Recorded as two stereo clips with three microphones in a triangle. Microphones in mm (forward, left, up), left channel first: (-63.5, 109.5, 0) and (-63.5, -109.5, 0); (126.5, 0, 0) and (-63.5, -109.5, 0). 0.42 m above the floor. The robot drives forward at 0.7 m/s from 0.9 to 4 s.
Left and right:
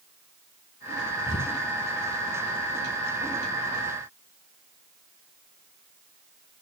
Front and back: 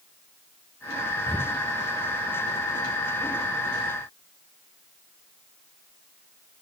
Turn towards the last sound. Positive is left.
turn(degrees=160)